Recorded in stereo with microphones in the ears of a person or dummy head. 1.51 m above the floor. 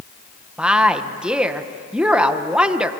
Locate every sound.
0.6 s a woman speaking: 5° right (ahead or behind), 1.4 m